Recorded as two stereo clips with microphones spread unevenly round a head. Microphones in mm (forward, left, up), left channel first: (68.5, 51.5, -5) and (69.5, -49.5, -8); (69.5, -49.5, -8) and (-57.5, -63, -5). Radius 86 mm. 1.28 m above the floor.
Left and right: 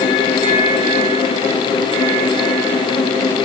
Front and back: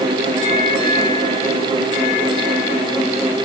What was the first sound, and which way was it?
Only background noise.